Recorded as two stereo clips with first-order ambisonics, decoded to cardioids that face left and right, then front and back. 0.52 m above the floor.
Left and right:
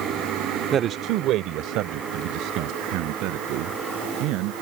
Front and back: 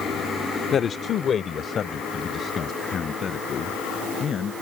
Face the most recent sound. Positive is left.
turn(degrees=-65)